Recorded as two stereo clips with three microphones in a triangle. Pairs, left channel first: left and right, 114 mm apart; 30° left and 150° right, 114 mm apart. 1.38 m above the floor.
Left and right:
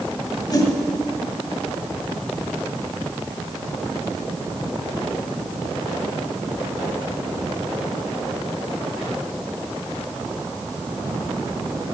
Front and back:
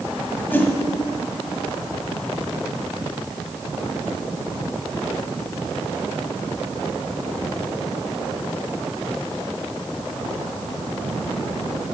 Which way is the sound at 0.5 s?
90° left.